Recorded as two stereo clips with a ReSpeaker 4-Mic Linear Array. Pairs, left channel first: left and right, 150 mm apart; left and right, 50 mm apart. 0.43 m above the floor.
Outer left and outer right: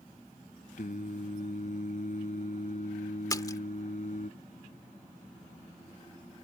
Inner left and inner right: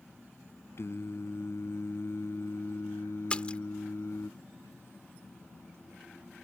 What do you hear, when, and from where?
0.8 s singing: 60° left (ahead or behind)
3.3 s a splash: 25° left (ahead or behind)